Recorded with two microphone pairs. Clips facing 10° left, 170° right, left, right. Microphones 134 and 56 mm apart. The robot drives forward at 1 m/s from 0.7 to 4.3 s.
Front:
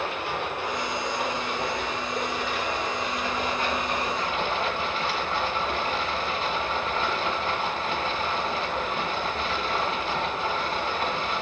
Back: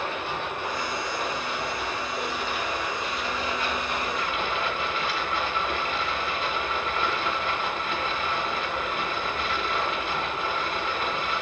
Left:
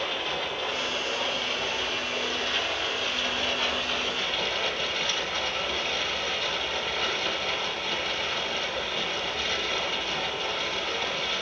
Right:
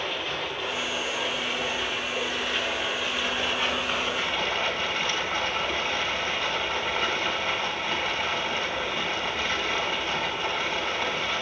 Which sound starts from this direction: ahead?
Running water, at 0.0 s.